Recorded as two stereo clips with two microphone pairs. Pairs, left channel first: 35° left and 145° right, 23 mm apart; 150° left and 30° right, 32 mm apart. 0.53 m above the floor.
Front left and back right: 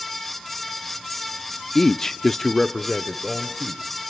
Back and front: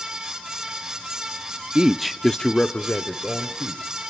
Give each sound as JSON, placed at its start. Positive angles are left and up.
{"t": 1.8, "sound": "a man speaking", "azimuth_deg": -10, "distance_m": 0.7}